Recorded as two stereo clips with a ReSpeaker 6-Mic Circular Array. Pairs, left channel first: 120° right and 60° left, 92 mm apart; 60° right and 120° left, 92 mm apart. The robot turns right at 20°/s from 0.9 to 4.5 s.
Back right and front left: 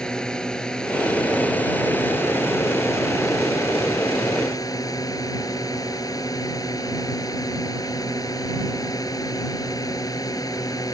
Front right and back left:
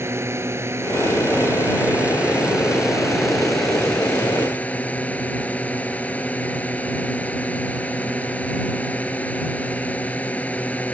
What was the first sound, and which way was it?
A drone, 165° left.